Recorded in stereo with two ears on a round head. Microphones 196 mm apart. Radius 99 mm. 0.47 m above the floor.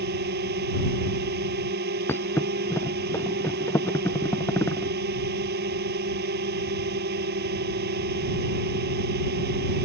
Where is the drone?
45° right (ahead or behind).